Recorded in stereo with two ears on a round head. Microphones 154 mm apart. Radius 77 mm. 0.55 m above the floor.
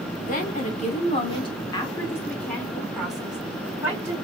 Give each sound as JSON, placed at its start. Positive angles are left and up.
{"t": 0.3, "sound": "a woman speaking", "side_deg": 50, "distance_m": 1.5}